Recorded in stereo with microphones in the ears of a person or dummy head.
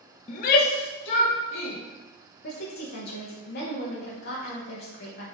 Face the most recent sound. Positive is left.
turn(degrees=50)  # may be behind; listen again after turning